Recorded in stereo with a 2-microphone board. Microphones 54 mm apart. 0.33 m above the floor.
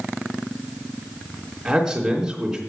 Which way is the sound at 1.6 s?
10° right (ahead or behind).